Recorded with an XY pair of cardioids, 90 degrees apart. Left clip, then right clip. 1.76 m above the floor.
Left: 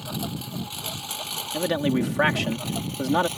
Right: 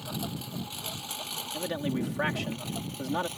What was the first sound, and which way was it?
A lawn mower, 30° left.